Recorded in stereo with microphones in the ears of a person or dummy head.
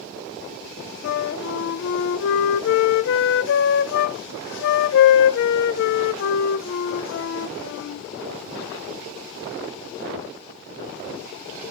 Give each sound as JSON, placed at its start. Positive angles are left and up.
{"t": 1.0, "sound": "a flute", "side_deg": 60, "distance_m": 0.5}